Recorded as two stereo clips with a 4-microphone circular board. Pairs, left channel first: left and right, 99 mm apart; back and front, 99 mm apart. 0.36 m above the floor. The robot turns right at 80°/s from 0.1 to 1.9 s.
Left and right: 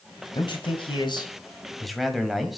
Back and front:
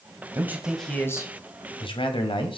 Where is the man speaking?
55° left, 1.6 m; by 2.6 s straight behind, 1.6 m.